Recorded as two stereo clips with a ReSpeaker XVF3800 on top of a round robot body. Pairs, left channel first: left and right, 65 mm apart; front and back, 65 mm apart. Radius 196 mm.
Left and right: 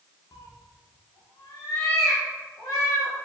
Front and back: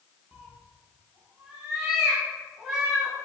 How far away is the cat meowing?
About 0.7 m.